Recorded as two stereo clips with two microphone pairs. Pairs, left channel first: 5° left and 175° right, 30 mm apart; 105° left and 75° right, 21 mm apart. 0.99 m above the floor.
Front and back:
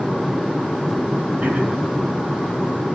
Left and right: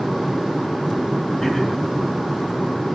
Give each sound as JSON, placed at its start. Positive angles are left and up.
{"t": 1.4, "sound": "throat clearing", "azimuth_deg": 165, "distance_m": 5.5}